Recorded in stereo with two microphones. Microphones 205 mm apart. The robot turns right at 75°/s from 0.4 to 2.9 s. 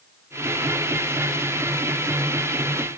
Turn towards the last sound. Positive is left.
No sound to turn to.